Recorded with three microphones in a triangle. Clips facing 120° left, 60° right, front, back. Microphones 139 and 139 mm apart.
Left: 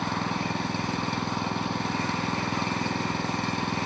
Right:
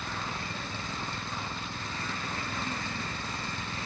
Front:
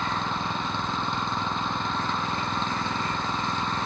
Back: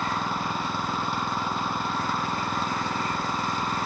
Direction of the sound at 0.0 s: 95° left.